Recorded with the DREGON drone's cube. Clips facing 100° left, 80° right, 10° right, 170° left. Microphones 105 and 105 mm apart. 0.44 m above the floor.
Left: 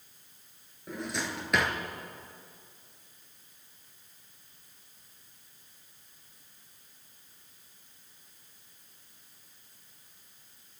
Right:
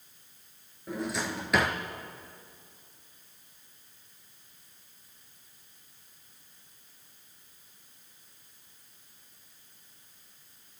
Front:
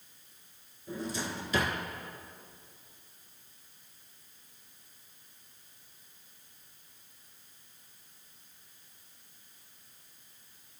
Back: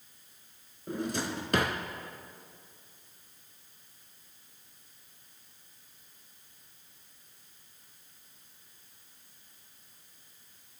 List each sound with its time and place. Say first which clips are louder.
0.9 s a drawer: right 3 dB, back 3 dB; 170° right, 1.6 m